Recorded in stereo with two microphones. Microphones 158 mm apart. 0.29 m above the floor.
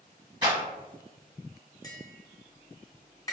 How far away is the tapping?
About 1.3 m.